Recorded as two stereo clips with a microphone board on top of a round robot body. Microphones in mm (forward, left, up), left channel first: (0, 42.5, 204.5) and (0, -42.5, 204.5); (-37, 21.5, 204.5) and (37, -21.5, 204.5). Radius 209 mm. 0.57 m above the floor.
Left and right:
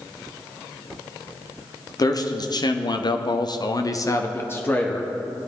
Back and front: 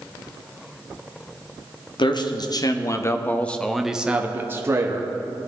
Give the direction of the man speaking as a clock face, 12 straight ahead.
8 o'clock.